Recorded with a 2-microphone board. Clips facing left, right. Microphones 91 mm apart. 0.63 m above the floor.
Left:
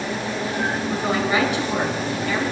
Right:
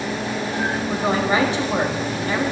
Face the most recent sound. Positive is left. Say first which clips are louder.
# right 3 dB
turn(degrees=-30)  # may be behind; listen again after turning